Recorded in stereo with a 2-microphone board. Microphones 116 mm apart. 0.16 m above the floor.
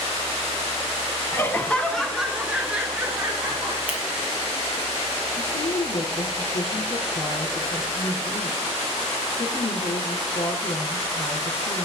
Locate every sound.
1.3 s laughter: 20° left (ahead or behind), 1.3 m; by 3.8 s 20° right (ahead or behind), 3.5 m
3.9 s scissors: 10° right (ahead or behind), 4 m
5.4 s a woman speaking: 65° left (ahead or behind), 4.5 m